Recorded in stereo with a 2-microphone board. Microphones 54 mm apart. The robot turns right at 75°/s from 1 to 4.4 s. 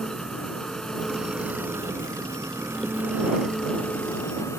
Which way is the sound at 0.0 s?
170° left.